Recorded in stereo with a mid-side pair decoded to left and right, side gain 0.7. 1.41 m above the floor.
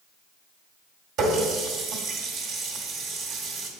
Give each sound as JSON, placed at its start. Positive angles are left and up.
{"t": 1.2, "sound": "a running tap", "azimuth_deg": -55, "distance_m": 1.7}